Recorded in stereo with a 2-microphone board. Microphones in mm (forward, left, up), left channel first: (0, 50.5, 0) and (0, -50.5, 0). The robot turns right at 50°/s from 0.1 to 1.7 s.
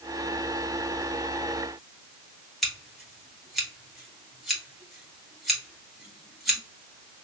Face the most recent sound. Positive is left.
turn(degrees=0)  # may be behind; listen again after turning